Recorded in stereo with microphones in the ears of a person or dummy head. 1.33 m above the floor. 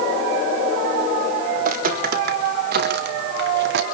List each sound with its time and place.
1.6 s footsteps: 50° right (ahead or behind), 4 m; by 3.8 s 70° right (ahead or behind), 4 m